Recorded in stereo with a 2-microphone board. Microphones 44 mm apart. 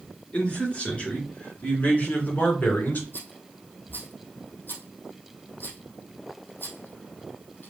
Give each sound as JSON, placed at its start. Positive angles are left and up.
{"t": 0.3, "sound": "a man speaking", "side_deg": 25, "distance_m": 3.0}
{"t": 3.1, "sound": "a rattle", "side_deg": 45, "distance_m": 2.5}